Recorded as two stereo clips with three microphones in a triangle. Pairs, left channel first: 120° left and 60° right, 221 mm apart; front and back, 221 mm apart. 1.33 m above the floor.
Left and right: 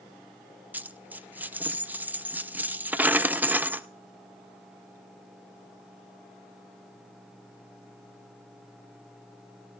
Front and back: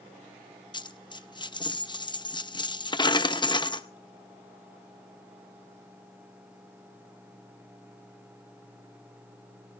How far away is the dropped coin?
About 0.6 m.